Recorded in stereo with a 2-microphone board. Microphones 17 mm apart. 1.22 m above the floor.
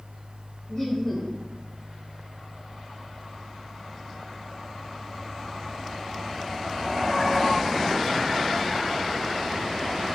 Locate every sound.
0.7 s laughter: 30° left (ahead or behind), 0.7 m